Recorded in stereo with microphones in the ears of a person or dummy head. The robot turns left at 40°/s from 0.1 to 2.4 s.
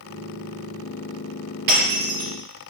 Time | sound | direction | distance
1.7 | breaking glass | 50° right (ahead or behind) | 3.5 m